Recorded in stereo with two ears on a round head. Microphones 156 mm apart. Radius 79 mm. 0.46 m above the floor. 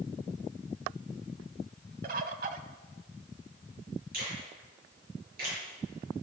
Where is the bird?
50° right (ahead or behind), 0.9 m.